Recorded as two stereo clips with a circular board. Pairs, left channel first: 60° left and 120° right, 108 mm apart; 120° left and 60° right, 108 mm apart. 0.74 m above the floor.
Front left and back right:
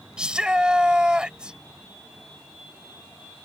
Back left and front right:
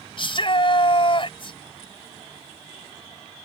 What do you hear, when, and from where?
0.2 s a shout: 160° left